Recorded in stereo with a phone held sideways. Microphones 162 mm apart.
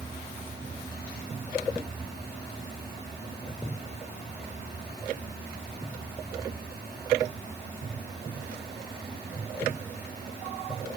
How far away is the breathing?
I don't hear breathing.